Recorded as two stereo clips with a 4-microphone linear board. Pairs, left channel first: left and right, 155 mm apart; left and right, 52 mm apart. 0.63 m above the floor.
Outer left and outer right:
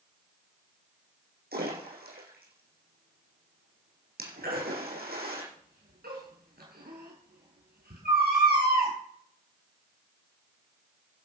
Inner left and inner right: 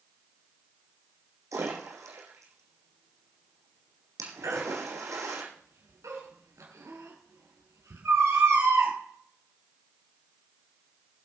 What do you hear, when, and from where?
1.5 s a splash: 85° right, 5.5 m
4.4 s a baby crying: 85° right, 6 m